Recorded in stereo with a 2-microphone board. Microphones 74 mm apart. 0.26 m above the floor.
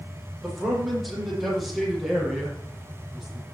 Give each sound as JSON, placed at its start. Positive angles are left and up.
{"t": 0.4, "sound": "a man speaking", "side_deg": 0, "distance_m": 8.0}